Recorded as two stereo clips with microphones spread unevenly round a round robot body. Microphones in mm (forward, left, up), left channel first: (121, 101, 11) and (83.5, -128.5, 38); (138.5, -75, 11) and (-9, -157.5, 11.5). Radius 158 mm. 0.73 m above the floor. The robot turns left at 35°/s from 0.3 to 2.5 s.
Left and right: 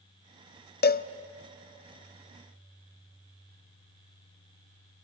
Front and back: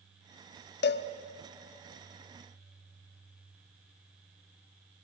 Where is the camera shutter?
No camera shutter in this recording.